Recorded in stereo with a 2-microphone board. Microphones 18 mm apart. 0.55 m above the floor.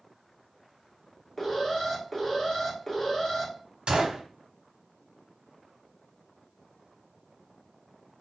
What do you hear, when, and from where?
1.4 s an alarm: 15° left (ahead or behind), 1.3 m
3.9 s a gunshot: 60° right (ahead or behind), 0.7 m